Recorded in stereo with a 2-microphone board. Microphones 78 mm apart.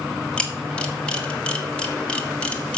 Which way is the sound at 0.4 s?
15° left (ahead or behind).